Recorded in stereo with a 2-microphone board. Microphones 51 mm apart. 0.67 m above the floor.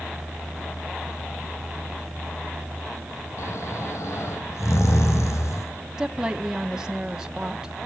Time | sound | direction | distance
3.4 | snoring | 70° left (ahead or behind) | 3 m
6.0 | a woman speaking | 15° right (ahead or behind) | 1.3 m